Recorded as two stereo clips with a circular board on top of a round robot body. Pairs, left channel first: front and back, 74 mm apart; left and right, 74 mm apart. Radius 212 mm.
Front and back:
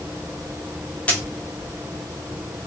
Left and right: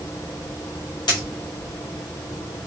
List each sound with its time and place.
1.1 s a dropped coin: 75° left, 0.8 m